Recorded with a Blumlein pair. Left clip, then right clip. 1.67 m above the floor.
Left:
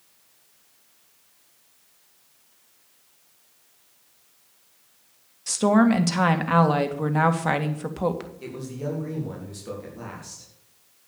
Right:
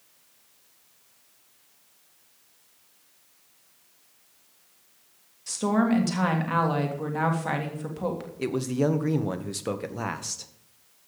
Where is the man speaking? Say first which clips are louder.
Right 8 dB; 60° right, 1.8 m.